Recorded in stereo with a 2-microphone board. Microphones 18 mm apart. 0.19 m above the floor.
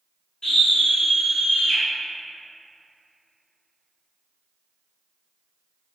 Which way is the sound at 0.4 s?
50° left (ahead or behind).